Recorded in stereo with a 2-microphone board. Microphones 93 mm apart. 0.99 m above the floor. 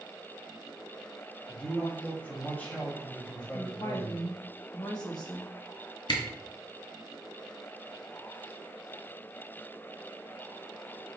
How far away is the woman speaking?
About 1.4 m.